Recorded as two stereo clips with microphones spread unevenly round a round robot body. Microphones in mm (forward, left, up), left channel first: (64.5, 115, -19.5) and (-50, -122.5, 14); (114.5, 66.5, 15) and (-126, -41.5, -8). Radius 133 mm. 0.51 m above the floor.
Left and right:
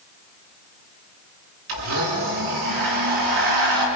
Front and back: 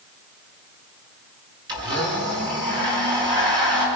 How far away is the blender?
About 6 m.